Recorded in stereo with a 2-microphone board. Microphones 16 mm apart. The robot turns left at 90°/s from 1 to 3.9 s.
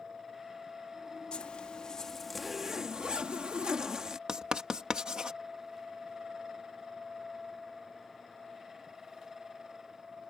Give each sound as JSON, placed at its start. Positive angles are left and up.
{"t": 1.3, "sound": "a zipper", "azimuth_deg": 95}
{"t": 4.3, "sound": "writing", "side_deg": -55}